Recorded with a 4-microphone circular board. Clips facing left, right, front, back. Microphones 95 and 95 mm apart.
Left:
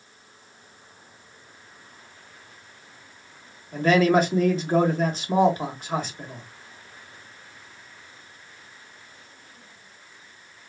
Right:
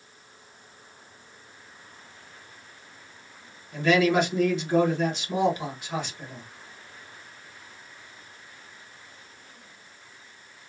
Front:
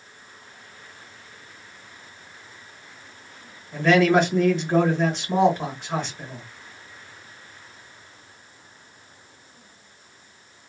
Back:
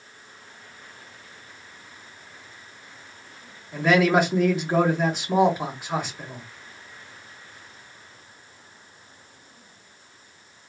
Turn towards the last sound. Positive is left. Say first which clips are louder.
# left 3 dB, front 2 dB
turn(degrees=100)